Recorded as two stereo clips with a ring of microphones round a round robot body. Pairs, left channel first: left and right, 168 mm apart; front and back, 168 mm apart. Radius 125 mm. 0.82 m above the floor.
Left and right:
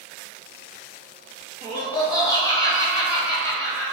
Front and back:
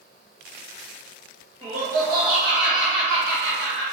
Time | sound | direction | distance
1.6 | laughter | 120° right | 0.5 m